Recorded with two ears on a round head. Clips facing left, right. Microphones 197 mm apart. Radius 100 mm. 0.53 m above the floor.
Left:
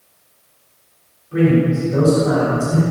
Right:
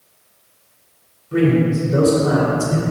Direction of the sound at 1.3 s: 60° right (ahead or behind).